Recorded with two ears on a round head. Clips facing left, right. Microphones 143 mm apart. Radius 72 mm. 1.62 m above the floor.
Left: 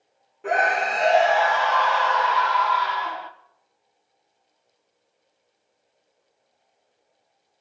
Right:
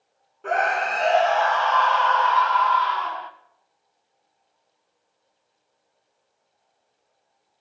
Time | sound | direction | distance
0.4 | a scream | 10° left (ahead or behind) | 1.3 m